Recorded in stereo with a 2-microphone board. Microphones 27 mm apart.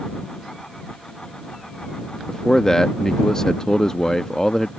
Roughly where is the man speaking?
Left.